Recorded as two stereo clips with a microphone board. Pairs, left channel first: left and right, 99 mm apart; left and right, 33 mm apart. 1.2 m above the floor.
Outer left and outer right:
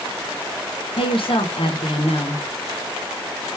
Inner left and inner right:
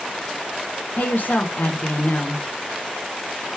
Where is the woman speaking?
65° left (ahead or behind), 0.7 m.